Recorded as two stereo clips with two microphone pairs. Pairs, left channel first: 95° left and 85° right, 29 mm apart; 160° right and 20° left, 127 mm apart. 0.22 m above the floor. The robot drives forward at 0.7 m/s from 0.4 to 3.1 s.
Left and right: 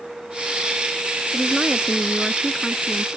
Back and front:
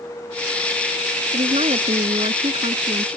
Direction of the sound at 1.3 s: Straight ahead.